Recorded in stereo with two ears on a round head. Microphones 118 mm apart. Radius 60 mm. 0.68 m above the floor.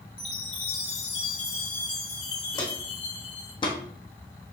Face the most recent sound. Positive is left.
turn(degrees=40)  # may be behind; listen again after turning